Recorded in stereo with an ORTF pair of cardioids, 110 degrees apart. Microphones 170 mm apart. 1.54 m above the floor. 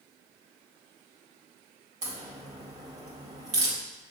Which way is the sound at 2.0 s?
45° right.